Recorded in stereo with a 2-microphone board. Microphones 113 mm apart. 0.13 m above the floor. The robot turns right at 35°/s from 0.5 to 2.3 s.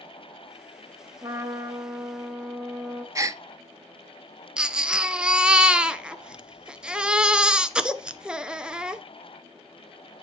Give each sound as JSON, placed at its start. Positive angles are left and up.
{"t": 1.2, "sound": "a trumpet", "azimuth_deg": -35, "distance_m": 1.7}
{"t": 3.1, "sound": "a gasp", "side_deg": -30, "distance_m": 0.5}
{"t": 4.6, "sound": "a baby crying", "side_deg": -5, "distance_m": 0.6}